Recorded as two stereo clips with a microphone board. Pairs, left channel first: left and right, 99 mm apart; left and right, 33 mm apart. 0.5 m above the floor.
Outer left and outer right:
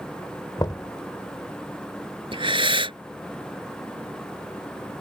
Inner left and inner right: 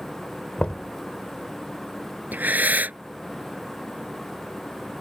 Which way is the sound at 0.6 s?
40° left (ahead or behind).